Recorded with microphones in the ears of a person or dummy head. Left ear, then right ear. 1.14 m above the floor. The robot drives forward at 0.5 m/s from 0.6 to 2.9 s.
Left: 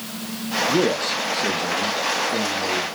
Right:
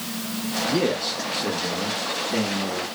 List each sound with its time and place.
0.7 s a man speaking: 35° left (ahead or behind), 0.6 m; by 2.9 s 15° left (ahead or behind), 1.6 m